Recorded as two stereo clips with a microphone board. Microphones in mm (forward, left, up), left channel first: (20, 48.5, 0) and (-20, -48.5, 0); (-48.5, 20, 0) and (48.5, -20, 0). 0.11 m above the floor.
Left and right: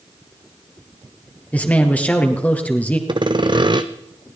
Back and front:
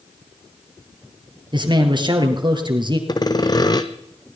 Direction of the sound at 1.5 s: 5° right.